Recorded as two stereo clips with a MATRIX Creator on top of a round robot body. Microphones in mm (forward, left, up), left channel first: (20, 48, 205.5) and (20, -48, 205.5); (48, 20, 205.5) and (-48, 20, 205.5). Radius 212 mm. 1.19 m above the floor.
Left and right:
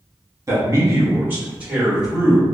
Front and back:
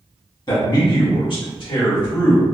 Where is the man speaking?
40° right, 1.3 m; by 2.5 s straight ahead, 1.6 m.